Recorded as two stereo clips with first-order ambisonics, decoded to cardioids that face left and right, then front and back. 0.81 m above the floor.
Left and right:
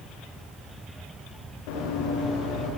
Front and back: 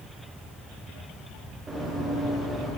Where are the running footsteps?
95° left, 8.5 m; by 2.7 s 100° left, 10.5 m.